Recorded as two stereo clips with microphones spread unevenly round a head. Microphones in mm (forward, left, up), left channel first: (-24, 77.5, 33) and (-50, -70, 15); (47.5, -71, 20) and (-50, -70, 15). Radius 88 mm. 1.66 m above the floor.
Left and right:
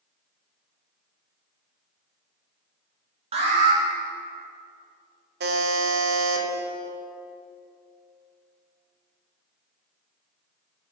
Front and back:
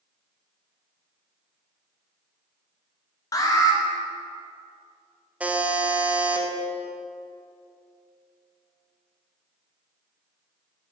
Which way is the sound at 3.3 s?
55° right.